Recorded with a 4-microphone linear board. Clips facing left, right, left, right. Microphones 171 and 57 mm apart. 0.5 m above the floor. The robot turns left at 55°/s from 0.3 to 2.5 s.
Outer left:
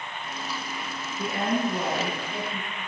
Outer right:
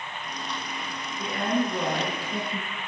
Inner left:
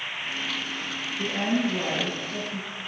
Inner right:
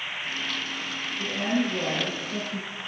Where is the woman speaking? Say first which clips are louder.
Even, inner left 1 dB; 35° left, 7 m; by 2.8 s 35° right, 7 m.